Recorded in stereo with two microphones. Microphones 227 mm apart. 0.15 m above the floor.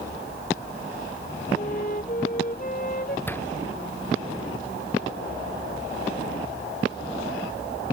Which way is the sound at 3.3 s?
10° left (ahead or behind).